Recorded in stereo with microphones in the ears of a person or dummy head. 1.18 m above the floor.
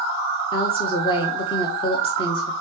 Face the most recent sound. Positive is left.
turn(degrees=25)  # may be behind; listen again after turning